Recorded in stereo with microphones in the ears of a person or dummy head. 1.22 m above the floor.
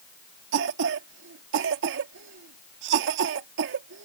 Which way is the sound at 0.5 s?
65° right (ahead or behind).